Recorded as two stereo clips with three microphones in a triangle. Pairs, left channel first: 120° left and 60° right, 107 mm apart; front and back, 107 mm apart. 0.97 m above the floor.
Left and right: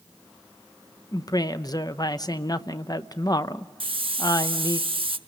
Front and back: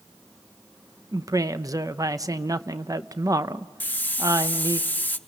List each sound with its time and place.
1.1 s a woman speaking: 145° left, 0.6 m
3.8 s a hiss: 70° right, 0.7 m